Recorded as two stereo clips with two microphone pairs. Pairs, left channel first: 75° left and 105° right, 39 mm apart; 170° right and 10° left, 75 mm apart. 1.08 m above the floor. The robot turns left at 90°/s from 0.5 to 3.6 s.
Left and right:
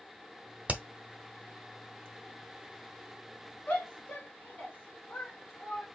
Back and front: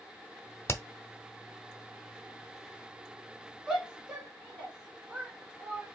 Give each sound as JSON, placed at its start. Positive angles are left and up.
{"t": 0.7, "sound": "hammering", "azimuth_deg": -135, "distance_m": 0.9}
{"t": 3.7, "sound": "a shout", "azimuth_deg": 85, "distance_m": 2.5}